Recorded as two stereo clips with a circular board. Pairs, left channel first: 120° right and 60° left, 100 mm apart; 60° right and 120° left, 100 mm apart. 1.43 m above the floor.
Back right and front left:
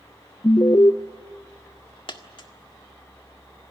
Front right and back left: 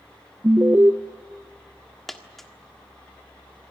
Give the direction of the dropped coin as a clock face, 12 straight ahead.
5 o'clock.